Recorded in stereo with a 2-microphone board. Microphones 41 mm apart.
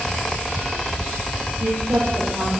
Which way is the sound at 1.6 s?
75° right (ahead or behind).